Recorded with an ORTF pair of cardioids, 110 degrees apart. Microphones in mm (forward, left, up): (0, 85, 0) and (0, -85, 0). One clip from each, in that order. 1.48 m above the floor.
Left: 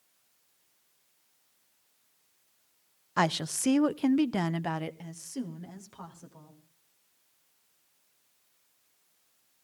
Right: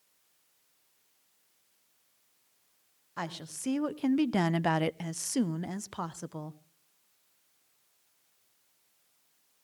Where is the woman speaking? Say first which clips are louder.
Left 11 dB; 50° left, 0.7 m; by 6.6 s 70° right, 1.3 m.